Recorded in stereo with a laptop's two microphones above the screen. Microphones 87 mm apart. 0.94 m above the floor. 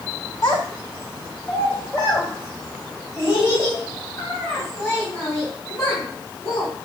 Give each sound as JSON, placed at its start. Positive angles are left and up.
{"t": 0.4, "sound": "a child speaking", "side_deg": 50, "distance_m": 0.8}